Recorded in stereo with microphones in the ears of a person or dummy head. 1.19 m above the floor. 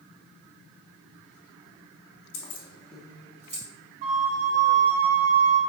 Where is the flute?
40° right (ahead or behind), 0.6 m.